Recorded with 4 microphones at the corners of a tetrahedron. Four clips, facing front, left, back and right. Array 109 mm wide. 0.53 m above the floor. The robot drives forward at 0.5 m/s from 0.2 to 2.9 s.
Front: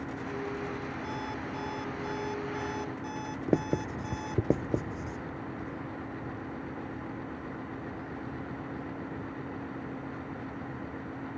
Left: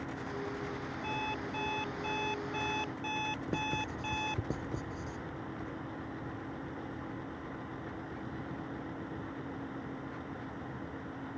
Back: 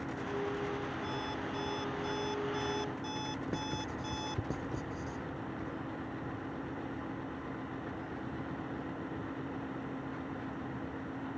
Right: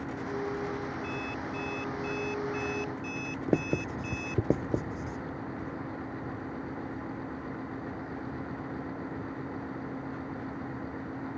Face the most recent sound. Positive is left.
turn(degrees=-45)